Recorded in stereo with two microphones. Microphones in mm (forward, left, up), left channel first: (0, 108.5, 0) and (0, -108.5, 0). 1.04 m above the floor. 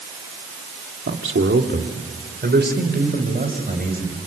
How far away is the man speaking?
About 2.5 m.